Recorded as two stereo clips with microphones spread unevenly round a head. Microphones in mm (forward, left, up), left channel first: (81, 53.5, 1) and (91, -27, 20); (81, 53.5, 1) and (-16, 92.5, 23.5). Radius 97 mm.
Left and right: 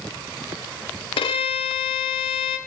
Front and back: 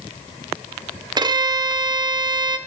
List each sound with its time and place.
1.2 s a violin: 105° left, 0.8 m